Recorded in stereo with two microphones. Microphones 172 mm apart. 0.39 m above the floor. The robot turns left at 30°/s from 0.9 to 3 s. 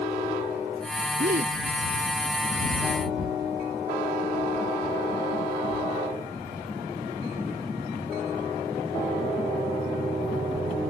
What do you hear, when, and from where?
1.2 s a gasp: 60° right (ahead or behind); by 1.6 s 70° right (ahead or behind)